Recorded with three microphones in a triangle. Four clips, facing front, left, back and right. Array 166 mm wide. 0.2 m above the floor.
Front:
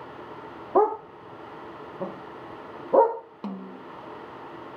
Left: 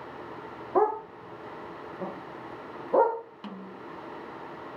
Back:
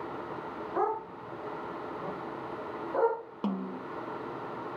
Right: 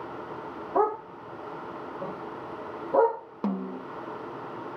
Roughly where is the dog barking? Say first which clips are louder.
Left 1 dB, front 9 dB; ahead.